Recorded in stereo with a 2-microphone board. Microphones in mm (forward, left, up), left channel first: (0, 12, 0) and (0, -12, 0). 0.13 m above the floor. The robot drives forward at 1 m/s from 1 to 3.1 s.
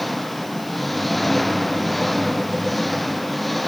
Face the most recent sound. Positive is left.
turn(degrees=5)  # may be behind; listen again after turning